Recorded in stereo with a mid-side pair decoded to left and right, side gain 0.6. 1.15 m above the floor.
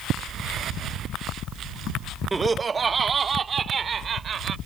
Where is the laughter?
20° right; by 4.5 s 40° right.